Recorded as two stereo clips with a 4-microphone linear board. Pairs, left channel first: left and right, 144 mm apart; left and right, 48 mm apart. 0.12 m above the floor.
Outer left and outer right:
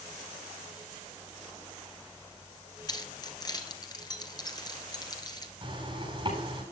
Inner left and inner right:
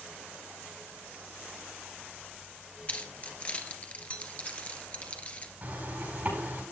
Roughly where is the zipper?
Right.